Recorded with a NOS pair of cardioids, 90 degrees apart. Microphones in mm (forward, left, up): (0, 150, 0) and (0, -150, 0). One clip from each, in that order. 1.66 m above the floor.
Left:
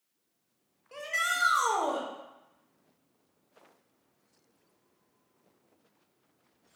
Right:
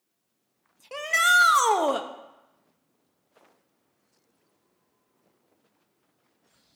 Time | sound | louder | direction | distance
0.9 | a shout | right 10 dB | 55° right | 1.0 m